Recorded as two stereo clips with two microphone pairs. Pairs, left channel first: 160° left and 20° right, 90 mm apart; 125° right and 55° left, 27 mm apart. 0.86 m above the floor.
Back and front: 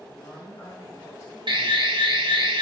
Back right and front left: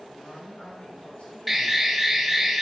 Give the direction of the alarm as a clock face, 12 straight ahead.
1 o'clock.